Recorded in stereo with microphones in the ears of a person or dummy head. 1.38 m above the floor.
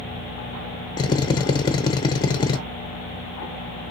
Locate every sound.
1.0 s a drill: 20° left (ahead or behind), 0.6 m